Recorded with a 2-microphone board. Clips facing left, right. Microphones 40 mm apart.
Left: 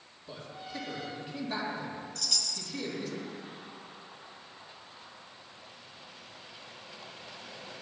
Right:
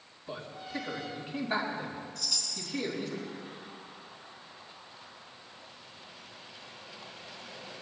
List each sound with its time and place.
0.3 s a man speaking: 20° right (ahead or behind), 4 m
2.1 s a chime: 65° left (ahead or behind), 2.5 m